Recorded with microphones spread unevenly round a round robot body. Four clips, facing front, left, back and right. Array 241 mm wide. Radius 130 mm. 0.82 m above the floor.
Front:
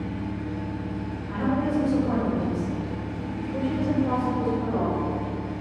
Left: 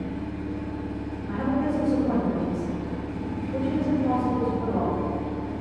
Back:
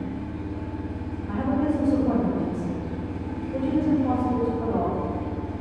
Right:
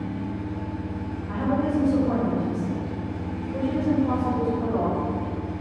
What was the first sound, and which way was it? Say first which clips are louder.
An engine running: right 1 dB, even; 95° left.